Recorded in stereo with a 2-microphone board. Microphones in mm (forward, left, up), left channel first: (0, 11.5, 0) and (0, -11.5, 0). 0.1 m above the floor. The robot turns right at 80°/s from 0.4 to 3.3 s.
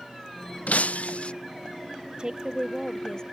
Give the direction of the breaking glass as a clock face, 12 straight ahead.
10 o'clock.